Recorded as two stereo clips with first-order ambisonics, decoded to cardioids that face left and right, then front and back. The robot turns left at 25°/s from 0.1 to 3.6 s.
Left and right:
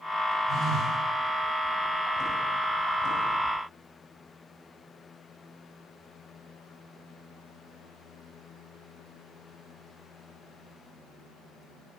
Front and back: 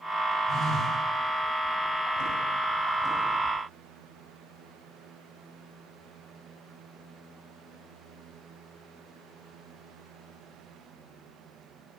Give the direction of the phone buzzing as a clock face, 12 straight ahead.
2 o'clock.